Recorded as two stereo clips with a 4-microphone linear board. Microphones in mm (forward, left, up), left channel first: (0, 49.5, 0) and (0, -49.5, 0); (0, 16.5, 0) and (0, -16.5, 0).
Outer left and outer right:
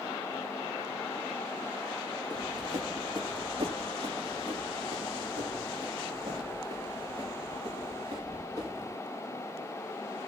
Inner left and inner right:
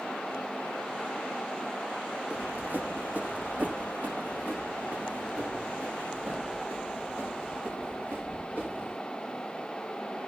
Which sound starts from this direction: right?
Running footsteps, at 2.3 s.